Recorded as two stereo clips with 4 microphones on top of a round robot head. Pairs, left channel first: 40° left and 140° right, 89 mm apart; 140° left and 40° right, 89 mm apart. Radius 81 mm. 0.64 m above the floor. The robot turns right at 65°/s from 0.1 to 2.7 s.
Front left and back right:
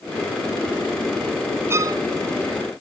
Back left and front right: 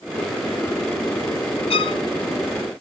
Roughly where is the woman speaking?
No woman speaking in this recording.